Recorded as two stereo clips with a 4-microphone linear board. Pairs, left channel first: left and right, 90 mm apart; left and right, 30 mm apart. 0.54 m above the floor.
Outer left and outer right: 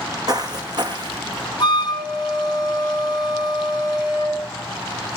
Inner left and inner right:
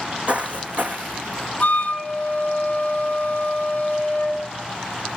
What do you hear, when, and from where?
0.3 s footsteps: 45° right (ahead or behind), 1.3 m; by 1.5 s 55° right (ahead or behind), 1.9 m
1.6 s a flute: 50° left (ahead or behind), 2 m